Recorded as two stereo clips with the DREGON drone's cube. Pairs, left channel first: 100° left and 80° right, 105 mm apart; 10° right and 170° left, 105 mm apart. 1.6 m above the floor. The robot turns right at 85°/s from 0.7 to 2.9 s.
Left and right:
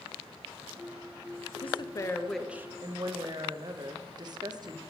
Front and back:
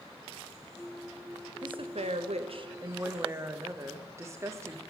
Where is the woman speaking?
125° left, 0.6 m; by 4.8 s 125° right, 0.6 m.